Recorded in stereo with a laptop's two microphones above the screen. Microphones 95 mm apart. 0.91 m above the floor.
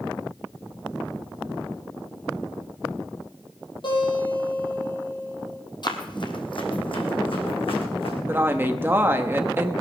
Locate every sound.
3.8 s a guitar: 50° left (ahead or behind), 8 m
5.8 s running footsteps: 50° left (ahead or behind), 1.9 m; by 8.2 s 70° left (ahead or behind), 4 m
8.3 s a woman speaking: 20° right (ahead or behind), 1.0 m